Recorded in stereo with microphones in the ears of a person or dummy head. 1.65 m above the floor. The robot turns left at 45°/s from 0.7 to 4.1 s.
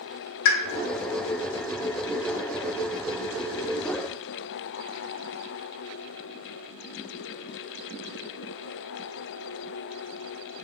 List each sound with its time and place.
0.5 s a pop: 65° left (ahead or behind), 0.6 m